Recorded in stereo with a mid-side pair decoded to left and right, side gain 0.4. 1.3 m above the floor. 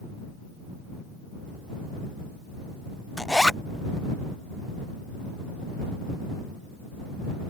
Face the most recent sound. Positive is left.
turn(degrees=10)